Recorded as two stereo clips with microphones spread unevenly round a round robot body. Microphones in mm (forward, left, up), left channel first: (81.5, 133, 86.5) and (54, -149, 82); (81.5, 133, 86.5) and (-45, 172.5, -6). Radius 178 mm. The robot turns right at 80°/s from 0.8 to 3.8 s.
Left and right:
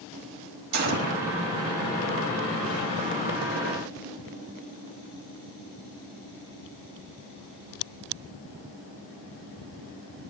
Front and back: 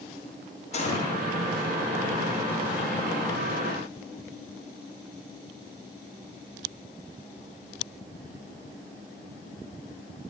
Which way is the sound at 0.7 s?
90° right.